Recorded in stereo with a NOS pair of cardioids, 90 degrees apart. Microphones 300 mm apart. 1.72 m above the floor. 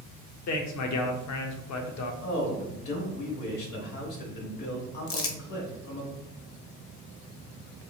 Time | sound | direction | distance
0.5 | a man speaking | 60° left | 0.8 m
2.2 | a man speaking | 70° left | 1.7 m
5.1 | crumpling | 45° left | 0.8 m